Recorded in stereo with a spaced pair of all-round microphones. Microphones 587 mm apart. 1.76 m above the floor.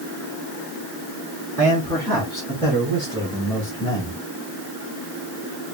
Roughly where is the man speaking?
Centre.